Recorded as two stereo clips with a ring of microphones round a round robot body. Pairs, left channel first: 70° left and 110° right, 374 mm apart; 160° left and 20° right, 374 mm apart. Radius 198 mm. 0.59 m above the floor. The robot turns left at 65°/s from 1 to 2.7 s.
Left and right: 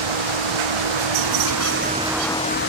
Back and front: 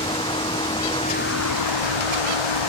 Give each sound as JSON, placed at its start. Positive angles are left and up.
{"t": 0.0, "sound": "a vehicle", "azimuth_deg": -125}